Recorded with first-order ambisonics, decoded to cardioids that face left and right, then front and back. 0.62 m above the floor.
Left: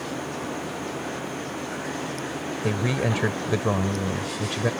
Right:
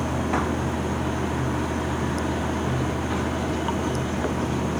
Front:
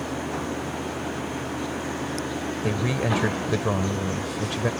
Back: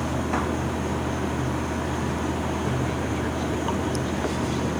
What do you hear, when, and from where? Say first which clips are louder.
0.0 s running water: right 6 dB, back 3 dB; 120° right
2.6 s a man speaking: left 1 dB, front 2 dB; 55° left